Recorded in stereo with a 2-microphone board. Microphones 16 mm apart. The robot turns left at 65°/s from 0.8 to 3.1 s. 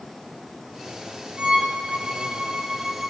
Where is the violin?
60° right, 4.5 m; by 3.1 s 170° right, 4.5 m.